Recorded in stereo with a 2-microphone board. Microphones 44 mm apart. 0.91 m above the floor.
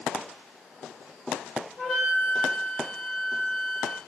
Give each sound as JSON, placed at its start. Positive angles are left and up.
{"t": 1.8, "sound": "a flute", "side_deg": 5, "distance_m": 0.9}